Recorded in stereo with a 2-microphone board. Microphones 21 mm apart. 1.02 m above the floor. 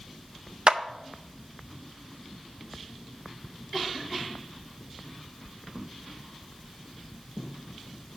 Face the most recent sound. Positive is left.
turn(degrees=-45)  # may be behind; listen again after turning